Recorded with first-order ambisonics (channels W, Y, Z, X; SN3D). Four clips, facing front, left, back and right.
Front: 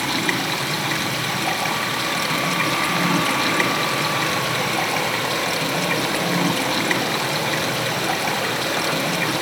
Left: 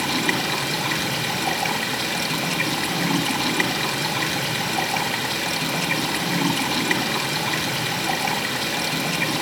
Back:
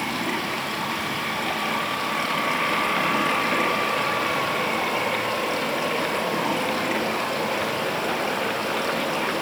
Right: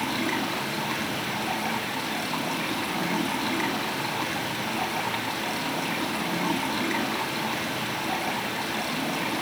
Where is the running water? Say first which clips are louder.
Left 5 dB, front 4 dB; 35° left, 2.5 m.